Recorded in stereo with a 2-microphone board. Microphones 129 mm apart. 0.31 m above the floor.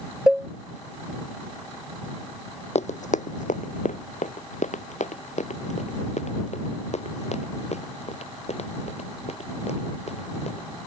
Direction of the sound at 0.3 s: 5° right (ahead or behind).